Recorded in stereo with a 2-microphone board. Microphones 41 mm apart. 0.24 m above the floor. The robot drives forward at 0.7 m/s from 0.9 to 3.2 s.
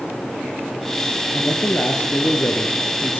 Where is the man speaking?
55° left (ahead or behind), 4 m; by 3.2 s 70° left (ahead or behind), 3.5 m.